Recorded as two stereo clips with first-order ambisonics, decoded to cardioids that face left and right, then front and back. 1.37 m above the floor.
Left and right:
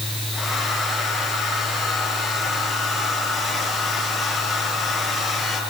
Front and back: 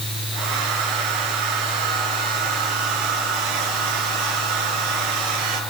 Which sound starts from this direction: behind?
A hair dryer, at 0.3 s.